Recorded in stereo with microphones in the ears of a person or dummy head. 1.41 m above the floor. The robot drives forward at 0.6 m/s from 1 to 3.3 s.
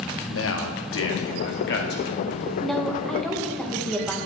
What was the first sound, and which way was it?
A man speaking, 65° left (ahead or behind).